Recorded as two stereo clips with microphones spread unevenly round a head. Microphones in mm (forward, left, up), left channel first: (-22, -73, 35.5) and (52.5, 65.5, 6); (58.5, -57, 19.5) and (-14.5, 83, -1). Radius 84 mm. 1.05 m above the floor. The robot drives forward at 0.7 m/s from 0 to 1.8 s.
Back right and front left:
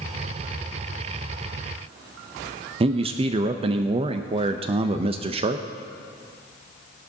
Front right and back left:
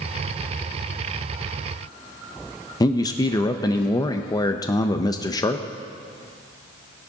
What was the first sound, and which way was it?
A man speaking, 5° left.